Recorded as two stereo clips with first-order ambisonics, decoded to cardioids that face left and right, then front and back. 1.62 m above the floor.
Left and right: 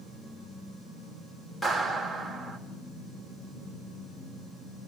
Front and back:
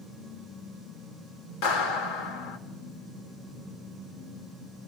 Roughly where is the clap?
Ahead.